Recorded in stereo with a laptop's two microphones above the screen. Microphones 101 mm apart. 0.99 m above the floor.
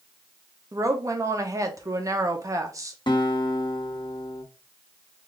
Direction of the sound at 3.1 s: 55° left (ahead or behind).